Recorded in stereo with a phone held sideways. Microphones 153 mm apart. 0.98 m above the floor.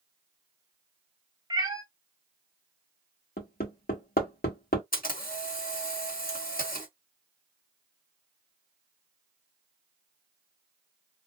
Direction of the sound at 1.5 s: 25° right (ahead or behind).